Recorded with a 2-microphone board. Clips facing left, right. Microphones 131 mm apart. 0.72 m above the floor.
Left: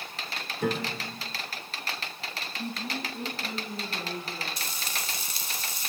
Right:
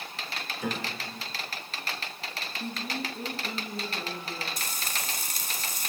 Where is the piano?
55° left (ahead or behind), 1.7 m.